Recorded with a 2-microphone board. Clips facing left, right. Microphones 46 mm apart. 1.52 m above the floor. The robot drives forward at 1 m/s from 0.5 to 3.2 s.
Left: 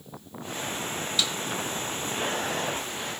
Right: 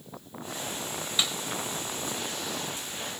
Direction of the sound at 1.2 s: 25° right (ahead or behind).